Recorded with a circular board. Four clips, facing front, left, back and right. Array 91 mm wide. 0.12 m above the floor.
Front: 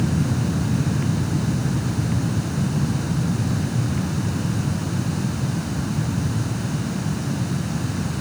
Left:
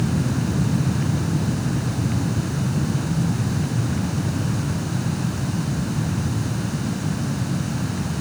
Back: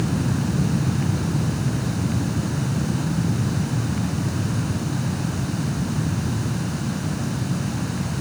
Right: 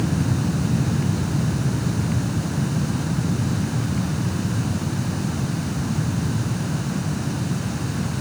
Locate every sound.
Only background noise.